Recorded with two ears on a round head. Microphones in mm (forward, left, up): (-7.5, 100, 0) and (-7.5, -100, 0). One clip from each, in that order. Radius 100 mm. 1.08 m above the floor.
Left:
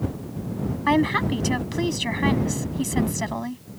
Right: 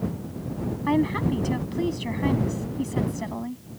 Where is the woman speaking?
45° left (ahead or behind).